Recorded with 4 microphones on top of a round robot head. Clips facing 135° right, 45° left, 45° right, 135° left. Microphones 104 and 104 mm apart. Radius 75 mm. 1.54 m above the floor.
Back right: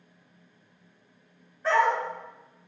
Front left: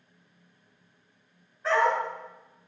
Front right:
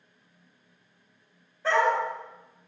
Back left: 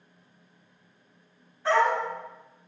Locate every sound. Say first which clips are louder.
1.6 s a dog barking: back right 1 dB, back left 1 dB; 50° right, 1.6 m